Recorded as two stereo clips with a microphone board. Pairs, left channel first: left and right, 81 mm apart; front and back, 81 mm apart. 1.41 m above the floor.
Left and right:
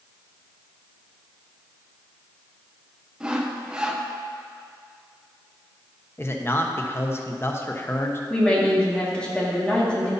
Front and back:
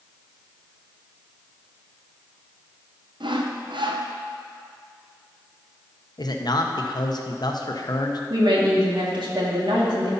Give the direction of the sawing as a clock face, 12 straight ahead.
6 o'clock.